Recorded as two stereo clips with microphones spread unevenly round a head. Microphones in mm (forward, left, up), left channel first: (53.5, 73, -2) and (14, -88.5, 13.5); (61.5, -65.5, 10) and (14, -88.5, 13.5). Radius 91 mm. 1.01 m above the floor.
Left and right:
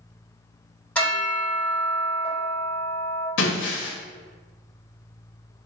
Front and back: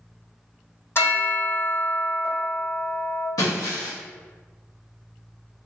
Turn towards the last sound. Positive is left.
turn(degrees=75)